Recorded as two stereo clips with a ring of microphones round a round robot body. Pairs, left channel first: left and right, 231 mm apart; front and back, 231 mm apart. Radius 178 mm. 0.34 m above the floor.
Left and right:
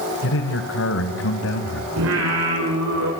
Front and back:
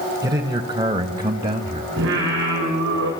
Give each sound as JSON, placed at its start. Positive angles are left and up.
{"t": 0.2, "sound": "a man speaking", "azimuth_deg": 105, "distance_m": 2.0}
{"t": 2.0, "sound": "singing", "azimuth_deg": -125, "distance_m": 5.5}